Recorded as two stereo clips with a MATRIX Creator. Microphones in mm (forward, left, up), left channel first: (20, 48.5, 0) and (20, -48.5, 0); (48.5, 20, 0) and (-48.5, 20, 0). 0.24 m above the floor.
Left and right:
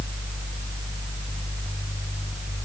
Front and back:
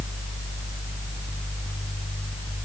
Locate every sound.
Only background noise.